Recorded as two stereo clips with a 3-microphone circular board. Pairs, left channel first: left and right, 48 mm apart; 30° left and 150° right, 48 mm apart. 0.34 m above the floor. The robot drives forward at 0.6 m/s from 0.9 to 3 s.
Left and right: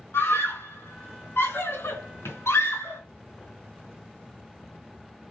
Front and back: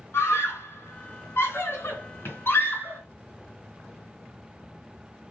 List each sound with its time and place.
0.1 s a scream: 60° left, 3.5 m; by 3.0 s 80° left, 3.5 m